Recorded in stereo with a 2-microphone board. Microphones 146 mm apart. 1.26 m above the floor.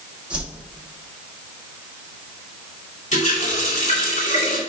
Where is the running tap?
55° left (ahead or behind), 2.5 m.